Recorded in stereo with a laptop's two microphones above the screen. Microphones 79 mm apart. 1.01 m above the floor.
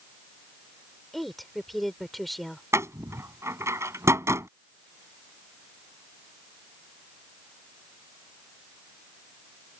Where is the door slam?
35° right (ahead or behind).